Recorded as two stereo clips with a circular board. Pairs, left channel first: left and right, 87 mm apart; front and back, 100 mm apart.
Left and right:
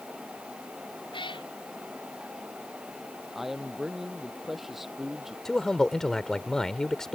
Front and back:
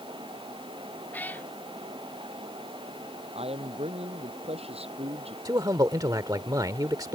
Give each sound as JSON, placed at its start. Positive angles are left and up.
{"t": 1.1, "sound": "a cat meowing", "azimuth_deg": 75}
{"t": 3.4, "sound": "a man speaking", "azimuth_deg": -175}
{"t": 5.5, "sound": "a man speaking", "azimuth_deg": 170}